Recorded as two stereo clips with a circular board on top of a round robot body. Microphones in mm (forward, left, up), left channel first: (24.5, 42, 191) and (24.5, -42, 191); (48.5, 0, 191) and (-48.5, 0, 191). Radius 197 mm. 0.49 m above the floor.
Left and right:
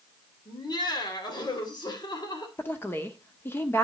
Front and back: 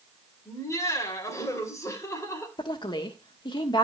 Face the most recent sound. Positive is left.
turn(degrees=30)